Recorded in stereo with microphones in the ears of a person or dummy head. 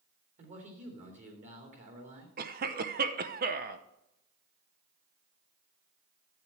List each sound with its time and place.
0.4 s a man speaking: 40° right (ahead or behind), 3 m
2.4 s a cough: 35° right (ahead or behind), 0.7 m